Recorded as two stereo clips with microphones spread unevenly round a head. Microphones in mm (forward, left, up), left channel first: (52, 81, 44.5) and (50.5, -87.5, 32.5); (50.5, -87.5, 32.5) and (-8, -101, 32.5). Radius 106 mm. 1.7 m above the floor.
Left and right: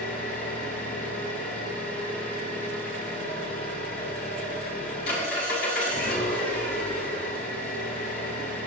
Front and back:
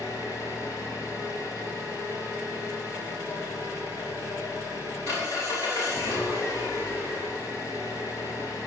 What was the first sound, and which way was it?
An engine running, 125° left.